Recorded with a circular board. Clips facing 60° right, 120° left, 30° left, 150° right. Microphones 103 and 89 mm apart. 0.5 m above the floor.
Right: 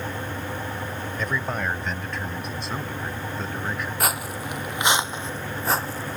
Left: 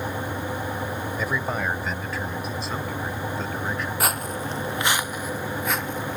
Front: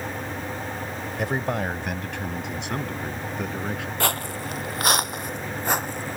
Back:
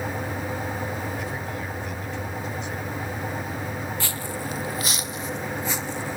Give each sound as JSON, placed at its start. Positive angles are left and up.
{"t": 1.2, "sound": "a man speaking", "azimuth_deg": 40}
{"t": 4.0, "sound": "footsteps", "azimuth_deg": 30}